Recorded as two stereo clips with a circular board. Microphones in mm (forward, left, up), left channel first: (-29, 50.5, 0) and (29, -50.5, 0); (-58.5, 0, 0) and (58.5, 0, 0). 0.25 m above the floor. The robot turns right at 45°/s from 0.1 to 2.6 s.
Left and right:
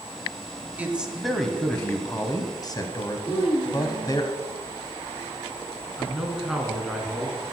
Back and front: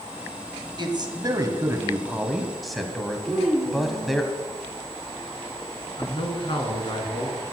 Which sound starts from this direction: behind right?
A man speaking, at 6.0 s.